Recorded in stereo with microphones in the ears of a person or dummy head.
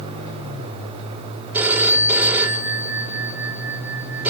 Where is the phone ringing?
10° right (ahead or behind), 2.5 m.